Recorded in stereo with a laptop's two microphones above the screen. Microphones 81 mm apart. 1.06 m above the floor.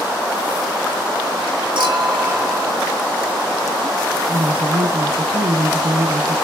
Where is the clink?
70° right (ahead or behind), 4 m.